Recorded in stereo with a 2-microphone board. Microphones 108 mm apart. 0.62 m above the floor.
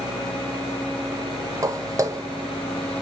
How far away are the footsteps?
About 0.7 m.